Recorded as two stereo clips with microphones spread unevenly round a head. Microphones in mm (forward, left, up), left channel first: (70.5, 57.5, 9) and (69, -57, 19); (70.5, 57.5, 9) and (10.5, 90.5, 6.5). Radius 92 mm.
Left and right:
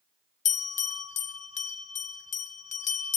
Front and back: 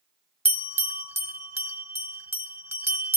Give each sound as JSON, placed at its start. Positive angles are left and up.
{"t": 0.5, "sound": "a bell", "azimuth_deg": 100, "distance_m": 1.8}